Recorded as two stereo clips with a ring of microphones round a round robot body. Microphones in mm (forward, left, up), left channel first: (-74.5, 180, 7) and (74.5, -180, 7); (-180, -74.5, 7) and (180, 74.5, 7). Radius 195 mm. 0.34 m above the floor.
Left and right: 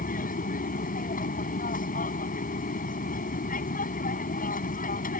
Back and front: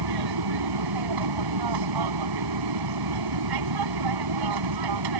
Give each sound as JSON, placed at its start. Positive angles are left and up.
{"t": 0.0, "sound": "an aircraft", "azimuth_deg": 45}